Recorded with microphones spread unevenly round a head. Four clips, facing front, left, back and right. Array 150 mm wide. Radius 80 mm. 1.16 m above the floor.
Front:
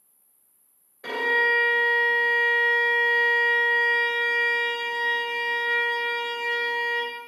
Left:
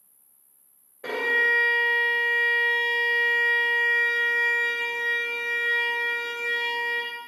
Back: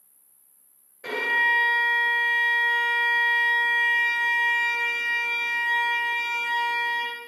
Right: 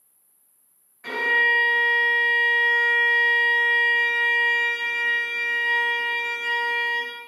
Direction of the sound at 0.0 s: 125° left.